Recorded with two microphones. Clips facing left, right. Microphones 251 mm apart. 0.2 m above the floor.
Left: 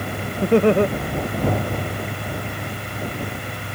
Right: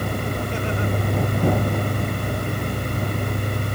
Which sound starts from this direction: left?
Laughter, at 0.4 s.